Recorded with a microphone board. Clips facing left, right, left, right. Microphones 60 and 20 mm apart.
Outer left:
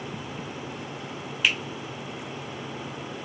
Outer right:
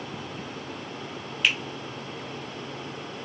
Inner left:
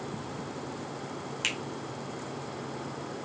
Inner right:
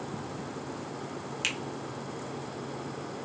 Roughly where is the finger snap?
Centre.